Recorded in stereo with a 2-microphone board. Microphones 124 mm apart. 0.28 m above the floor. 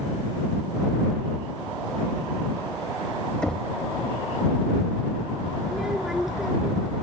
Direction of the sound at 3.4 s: 5° left (ahead or behind).